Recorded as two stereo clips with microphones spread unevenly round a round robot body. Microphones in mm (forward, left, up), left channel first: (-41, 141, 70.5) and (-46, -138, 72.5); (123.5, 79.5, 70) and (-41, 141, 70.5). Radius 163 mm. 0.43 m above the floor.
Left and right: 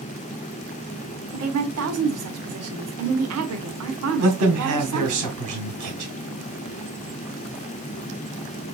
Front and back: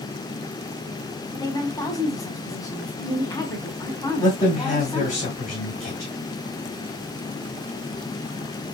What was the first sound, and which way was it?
A woman speaking, 90° right.